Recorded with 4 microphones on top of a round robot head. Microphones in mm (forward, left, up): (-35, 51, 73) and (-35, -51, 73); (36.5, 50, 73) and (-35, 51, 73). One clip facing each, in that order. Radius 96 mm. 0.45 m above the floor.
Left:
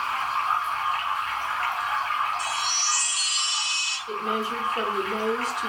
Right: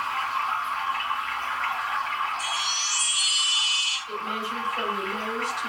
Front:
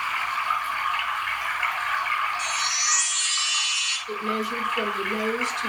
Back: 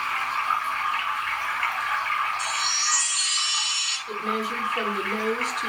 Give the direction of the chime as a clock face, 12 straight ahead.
8 o'clock.